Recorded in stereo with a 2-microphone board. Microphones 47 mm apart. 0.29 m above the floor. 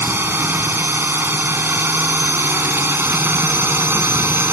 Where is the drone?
55° right (ahead or behind).